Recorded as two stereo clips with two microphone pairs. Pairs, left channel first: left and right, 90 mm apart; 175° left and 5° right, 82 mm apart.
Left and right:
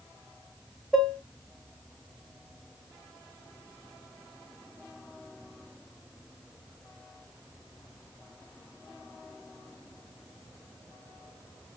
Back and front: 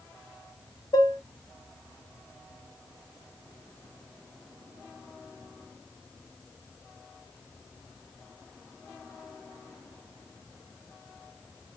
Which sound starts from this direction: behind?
Dishes clattering, at 0.9 s.